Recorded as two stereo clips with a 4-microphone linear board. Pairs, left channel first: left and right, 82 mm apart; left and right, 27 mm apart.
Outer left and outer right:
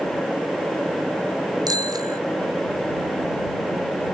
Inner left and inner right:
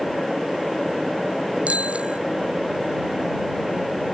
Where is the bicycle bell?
50° right (ahead or behind).